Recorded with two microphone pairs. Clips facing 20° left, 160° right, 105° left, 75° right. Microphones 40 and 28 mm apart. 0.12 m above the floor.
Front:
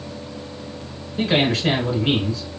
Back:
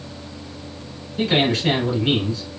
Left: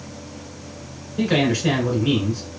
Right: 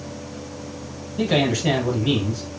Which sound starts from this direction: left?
A man speaking, at 1.2 s.